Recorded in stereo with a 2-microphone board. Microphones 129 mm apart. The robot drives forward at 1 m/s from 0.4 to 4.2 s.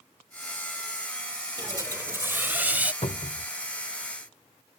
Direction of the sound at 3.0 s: 55° left (ahead or behind).